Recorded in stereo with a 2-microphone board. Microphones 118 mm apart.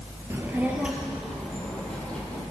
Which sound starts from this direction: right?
A child speaking, at 0.3 s.